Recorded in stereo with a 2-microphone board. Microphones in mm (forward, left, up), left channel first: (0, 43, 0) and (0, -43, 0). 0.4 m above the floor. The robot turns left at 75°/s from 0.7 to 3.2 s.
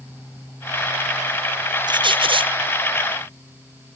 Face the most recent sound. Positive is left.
turn(degrees=-160)